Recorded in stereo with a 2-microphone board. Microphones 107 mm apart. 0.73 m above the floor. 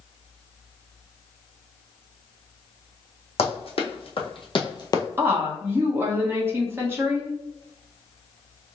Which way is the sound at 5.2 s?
20° right (ahead or behind).